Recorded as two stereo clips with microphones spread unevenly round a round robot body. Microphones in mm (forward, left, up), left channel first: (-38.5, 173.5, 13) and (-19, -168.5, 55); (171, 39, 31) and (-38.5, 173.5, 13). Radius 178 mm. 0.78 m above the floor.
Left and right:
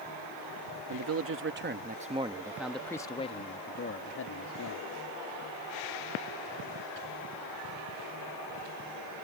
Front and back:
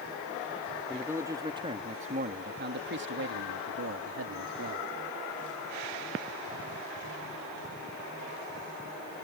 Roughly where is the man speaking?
Behind right.